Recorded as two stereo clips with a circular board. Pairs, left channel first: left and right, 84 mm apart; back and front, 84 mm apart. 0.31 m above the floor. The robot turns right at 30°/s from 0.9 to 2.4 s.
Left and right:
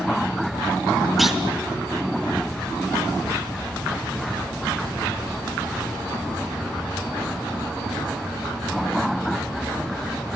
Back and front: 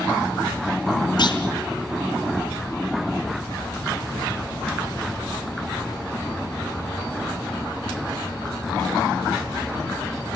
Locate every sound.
1.2 s a clunk: straight behind, 2 m; by 1.4 s 175° right, 2 m